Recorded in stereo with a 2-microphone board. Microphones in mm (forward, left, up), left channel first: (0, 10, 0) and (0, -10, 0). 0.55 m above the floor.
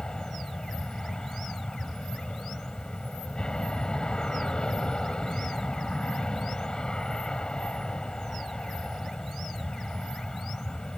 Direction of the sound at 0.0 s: 40° left (ahead or behind).